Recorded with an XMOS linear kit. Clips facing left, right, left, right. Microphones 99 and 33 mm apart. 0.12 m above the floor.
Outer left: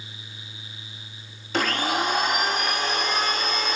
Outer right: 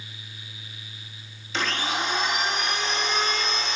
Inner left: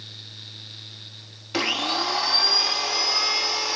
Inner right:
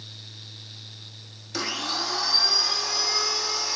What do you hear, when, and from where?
1.5 s a blender: 50° left (ahead or behind), 1.1 m